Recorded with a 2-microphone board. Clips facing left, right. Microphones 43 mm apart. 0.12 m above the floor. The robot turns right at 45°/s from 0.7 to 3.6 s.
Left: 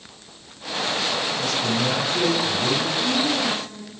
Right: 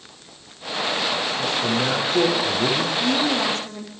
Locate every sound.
1.4 s a man speaking: 160° right, 7 m; by 2.9 s 95° right, 7 m
3.0 s a woman speaking: 45° right (ahead or behind), 7.5 m; by 3.9 s 70° right (ahead or behind), 7.5 m